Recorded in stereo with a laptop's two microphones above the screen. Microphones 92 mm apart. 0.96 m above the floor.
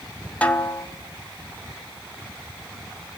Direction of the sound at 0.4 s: 15° left (ahead or behind).